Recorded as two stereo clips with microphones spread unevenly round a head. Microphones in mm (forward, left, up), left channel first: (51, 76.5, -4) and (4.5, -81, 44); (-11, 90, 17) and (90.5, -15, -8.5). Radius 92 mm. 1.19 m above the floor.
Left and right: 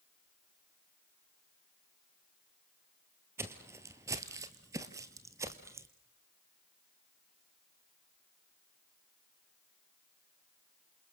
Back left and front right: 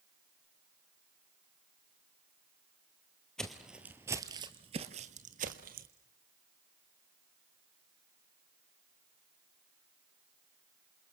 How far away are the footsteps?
About 1.5 m.